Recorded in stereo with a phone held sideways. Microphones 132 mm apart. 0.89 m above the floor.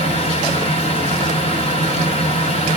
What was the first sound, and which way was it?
A fan, 50° left (ahead or behind).